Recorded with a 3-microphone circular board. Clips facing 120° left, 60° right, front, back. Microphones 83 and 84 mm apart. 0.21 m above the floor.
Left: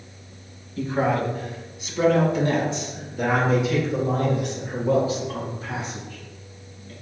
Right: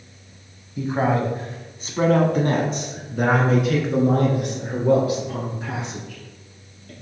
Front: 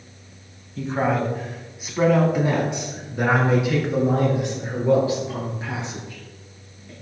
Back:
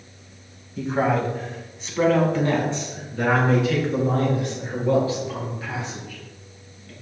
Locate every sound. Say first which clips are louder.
0.8 s a man speaking: right 1 dB, back 1 dB; 100° right, 1.0 m; by 6.9 s 65° right, 4 m